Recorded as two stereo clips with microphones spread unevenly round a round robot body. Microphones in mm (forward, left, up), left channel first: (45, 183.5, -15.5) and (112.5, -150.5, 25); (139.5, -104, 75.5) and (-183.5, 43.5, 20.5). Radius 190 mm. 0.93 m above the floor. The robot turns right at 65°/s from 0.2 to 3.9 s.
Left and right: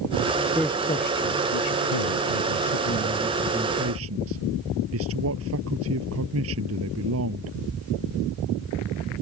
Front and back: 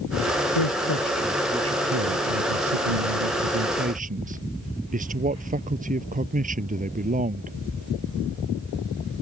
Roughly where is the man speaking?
Ahead.